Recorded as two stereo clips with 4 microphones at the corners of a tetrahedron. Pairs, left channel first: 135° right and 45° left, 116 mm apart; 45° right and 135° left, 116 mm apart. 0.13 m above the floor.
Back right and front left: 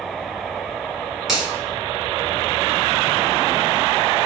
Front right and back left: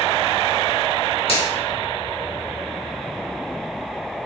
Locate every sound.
1.3 s a finger snap: 40° right, 1.7 m